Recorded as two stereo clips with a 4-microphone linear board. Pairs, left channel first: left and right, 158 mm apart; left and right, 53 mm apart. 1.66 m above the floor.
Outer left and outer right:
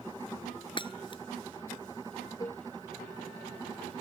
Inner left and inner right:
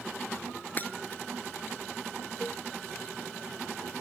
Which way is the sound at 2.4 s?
25° left (ahead or behind).